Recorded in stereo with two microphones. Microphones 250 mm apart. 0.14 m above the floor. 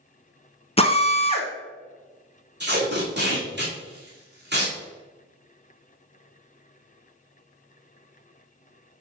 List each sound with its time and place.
0.8 s a drill: 25° left (ahead or behind), 0.9 m
2.6 s tape being pulled: 45° right (ahead or behind), 2.5 m